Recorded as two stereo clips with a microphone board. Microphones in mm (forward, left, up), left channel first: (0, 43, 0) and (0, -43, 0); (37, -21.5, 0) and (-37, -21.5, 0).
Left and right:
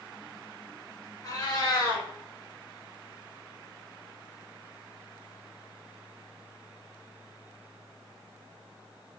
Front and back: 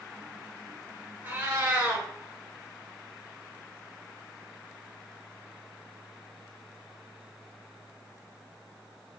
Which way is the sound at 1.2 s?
125° left.